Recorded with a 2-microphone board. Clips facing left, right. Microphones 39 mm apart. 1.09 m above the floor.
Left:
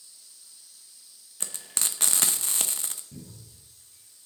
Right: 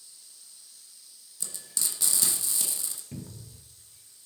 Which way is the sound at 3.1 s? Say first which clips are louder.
Right 4 dB; 75° right (ahead or behind).